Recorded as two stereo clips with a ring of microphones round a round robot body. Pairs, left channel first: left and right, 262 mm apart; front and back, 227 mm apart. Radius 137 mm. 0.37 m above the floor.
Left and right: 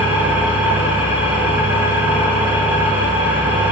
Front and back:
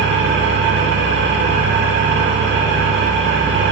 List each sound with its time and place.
0.0 s an engine running: 170° right, 1.1 m